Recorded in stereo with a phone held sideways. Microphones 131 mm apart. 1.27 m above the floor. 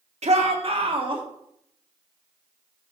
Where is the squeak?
No squeak in this recording.